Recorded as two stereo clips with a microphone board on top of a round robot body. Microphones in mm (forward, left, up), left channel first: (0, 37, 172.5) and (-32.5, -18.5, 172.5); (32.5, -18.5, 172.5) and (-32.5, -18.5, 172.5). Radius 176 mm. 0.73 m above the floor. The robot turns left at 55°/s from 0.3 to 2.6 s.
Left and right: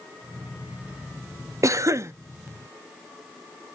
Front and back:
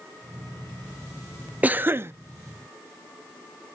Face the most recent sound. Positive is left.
turn(degrees=-175)